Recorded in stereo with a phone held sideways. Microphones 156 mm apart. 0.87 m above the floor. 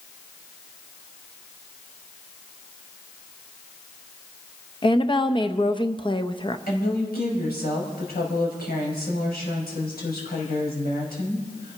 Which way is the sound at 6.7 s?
80° left.